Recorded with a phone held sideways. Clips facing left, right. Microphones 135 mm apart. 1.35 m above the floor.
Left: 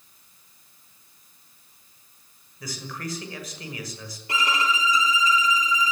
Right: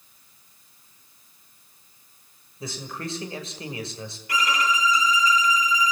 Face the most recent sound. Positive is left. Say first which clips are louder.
# right 1 dB
turn(degrees=25)  # may be behind; listen again after turning